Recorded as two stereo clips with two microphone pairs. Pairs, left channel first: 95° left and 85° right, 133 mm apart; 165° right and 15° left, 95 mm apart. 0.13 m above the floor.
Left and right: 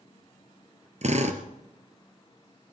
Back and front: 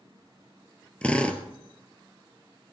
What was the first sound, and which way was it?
A drill, 90° right.